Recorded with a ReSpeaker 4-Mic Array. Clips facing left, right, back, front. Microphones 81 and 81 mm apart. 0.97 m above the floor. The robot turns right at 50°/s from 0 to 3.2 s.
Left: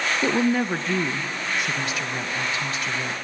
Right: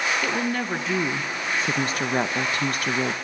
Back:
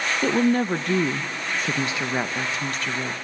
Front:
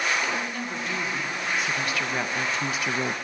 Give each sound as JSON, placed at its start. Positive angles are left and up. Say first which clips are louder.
{"t": 0.2, "sound": "a woman speaking", "louder": "left 4 dB, back 9 dB", "azimuth_deg": 150, "distance_m": 0.6}